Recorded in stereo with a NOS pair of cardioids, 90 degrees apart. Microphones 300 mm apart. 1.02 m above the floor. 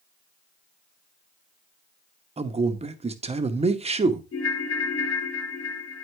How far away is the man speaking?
About 1.0 m.